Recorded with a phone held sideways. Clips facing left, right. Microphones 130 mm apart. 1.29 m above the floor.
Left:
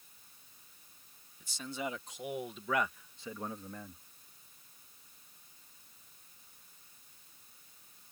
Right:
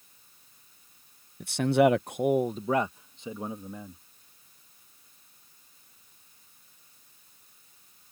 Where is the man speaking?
70° right (ahead or behind); by 4.0 s 10° right (ahead or behind).